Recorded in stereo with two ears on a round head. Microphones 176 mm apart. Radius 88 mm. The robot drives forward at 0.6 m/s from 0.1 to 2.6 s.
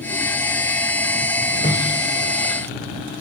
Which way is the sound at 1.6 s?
30° left (ahead or behind).